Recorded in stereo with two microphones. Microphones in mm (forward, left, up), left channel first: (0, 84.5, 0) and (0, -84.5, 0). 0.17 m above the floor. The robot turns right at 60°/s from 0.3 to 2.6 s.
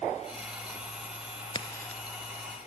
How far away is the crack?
About 0.6 m.